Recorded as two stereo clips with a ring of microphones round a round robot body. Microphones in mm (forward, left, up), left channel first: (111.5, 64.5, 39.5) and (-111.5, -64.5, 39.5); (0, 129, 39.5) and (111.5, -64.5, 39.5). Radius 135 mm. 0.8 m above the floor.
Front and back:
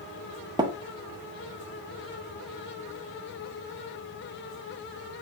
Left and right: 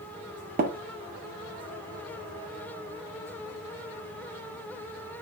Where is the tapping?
80° right, 0.6 m.